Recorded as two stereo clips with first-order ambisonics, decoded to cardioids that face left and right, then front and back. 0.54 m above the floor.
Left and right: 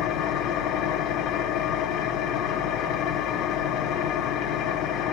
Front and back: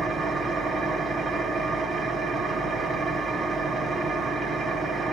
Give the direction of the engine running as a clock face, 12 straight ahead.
8 o'clock.